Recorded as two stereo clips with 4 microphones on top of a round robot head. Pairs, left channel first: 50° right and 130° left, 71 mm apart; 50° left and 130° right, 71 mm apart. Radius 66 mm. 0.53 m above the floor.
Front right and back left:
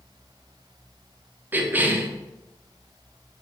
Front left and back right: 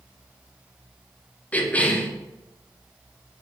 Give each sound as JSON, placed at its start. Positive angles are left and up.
{"t": 1.5, "sound": "a cough", "azimuth_deg": 100, "distance_m": 0.7}